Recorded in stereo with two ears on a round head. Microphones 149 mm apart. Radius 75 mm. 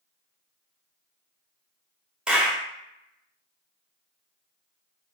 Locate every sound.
2.3 s a clap: 5° right (ahead or behind), 0.5 m